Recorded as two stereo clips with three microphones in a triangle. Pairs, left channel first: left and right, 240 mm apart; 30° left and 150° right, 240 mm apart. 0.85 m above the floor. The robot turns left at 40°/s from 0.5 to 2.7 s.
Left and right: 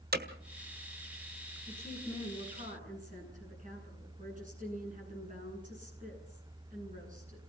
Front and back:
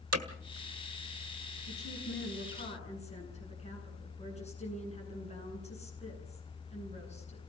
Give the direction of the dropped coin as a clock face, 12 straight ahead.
I don't hear a dropped coin.